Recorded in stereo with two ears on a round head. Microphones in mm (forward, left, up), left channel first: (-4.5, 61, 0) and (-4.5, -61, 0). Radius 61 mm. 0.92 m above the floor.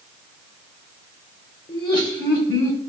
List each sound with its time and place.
1.7 s laughter: 30° left (ahead or behind), 3 m; by 2.8 s 25° left (ahead or behind), 3.5 m